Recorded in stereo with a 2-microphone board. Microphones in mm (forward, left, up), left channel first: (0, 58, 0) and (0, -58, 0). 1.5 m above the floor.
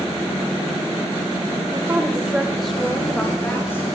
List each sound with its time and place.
1.7 s a woman speaking: 30° right (ahead or behind), 1.7 m; by 3.9 s 20° left (ahead or behind), 4 m